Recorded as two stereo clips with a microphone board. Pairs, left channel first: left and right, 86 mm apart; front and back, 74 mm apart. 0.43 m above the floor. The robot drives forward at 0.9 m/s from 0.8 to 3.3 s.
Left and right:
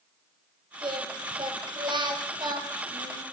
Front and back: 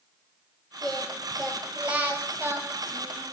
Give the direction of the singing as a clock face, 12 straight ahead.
3 o'clock.